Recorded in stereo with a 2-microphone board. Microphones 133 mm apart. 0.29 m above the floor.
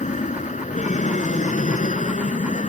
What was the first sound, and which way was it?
An aircraft, 70° left (ahead or behind).